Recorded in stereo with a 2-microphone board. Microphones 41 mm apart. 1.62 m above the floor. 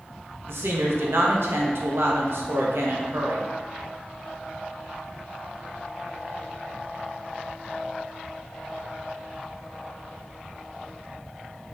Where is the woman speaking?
75° right (ahead or behind), 0.6 m.